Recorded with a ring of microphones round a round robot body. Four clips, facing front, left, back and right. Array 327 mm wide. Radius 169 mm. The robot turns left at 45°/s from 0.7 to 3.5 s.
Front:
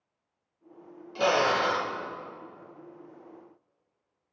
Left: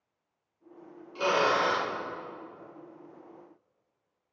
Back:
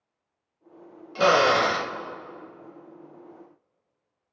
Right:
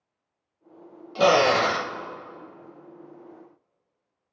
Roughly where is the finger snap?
I don't hear a finger snap.